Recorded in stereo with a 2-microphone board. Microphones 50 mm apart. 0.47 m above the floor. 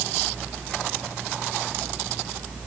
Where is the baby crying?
I don't hear a baby crying.